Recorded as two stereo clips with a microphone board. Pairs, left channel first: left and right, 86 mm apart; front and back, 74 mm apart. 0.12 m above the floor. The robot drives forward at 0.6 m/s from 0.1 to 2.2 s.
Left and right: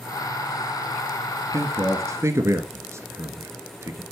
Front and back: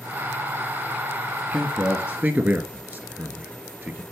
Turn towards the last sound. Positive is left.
turn(degrees=-125)